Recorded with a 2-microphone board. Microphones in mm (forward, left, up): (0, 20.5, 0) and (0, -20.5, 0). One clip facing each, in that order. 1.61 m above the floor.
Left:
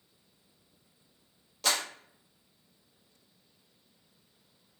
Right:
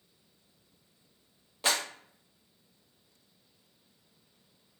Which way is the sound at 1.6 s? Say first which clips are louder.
Right 1 dB; 20° right (ahead or behind).